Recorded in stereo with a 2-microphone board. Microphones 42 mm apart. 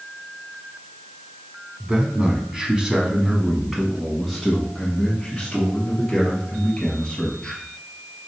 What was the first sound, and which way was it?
A man speaking, 30° right (ahead or behind).